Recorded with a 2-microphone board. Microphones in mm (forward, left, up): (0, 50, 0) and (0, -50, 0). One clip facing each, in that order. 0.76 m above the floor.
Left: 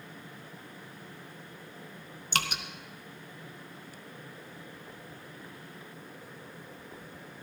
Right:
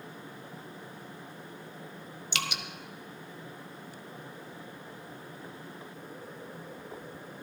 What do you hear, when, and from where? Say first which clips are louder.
2.3 s dripping: left 3 dB; 40° left (ahead or behind), 1.0 m